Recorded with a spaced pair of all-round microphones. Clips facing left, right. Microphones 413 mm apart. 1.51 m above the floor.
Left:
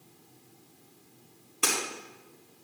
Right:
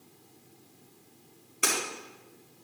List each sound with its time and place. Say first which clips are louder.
1.6 s breaking glass: even; 5° left (ahead or behind), 5 m